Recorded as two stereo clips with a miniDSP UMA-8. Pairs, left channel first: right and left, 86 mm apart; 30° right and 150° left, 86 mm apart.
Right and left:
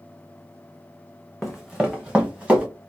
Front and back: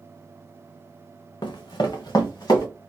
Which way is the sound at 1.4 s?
5° right.